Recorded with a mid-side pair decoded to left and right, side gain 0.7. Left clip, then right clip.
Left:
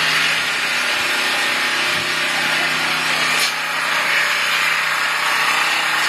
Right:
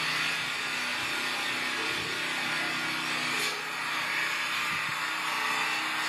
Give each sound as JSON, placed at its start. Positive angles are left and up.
{"t": 0.0, "sound": "an engine running", "azimuth_deg": 60, "distance_m": 1.0}